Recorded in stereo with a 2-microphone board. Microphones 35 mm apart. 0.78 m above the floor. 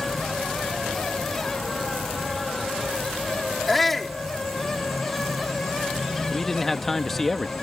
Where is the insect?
Centre (ahead or behind).